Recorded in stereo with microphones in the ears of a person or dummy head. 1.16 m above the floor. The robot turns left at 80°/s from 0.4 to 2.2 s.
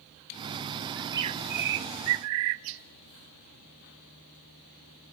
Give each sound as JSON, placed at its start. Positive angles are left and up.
{"t": 1.0, "sound": "a bird", "azimuth_deg": -5, "distance_m": 0.6}